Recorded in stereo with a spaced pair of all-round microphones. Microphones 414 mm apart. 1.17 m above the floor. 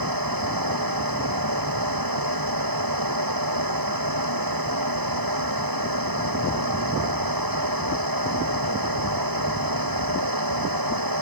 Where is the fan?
55° right (ahead or behind).